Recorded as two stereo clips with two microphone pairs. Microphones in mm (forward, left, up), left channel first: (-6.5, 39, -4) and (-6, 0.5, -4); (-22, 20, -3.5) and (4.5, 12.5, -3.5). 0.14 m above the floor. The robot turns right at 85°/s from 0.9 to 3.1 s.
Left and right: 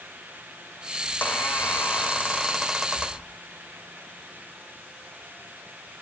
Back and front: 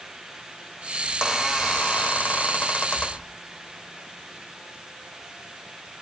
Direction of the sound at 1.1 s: 40° left.